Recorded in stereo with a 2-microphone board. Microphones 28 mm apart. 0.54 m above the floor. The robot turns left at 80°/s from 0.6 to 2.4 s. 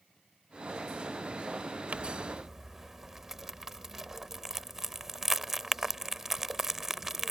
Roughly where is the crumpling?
Right.